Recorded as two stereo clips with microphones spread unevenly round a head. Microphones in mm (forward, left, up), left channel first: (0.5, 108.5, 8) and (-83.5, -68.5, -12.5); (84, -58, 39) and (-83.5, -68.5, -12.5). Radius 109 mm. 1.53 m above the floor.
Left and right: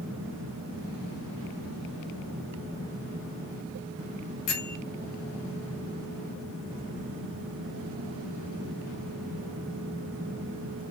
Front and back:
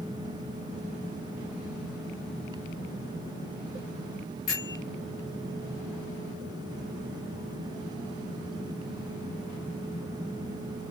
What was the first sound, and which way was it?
A bell, 50° left.